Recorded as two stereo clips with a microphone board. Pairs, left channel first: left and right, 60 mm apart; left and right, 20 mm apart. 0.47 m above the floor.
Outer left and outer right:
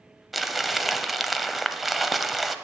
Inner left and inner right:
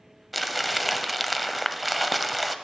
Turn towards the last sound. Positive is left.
turn(degrees=0)  # may be behind; listen again after turning